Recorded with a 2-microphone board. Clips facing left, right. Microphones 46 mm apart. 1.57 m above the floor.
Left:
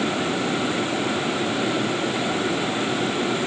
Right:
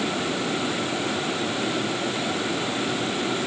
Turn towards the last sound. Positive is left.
No sound to turn to.